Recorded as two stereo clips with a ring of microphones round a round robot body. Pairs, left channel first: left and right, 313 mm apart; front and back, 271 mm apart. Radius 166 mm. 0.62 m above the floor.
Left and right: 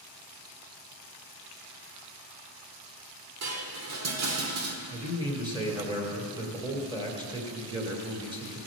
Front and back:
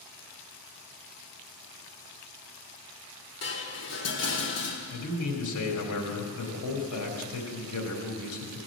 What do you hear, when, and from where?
3.4 s dishes clattering: 50° right, 1.3 m
4.9 s a man speaking: 15° right, 2.5 m